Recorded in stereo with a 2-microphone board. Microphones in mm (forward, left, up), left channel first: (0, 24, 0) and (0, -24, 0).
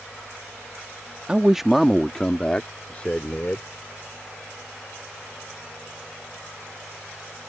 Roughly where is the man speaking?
Right.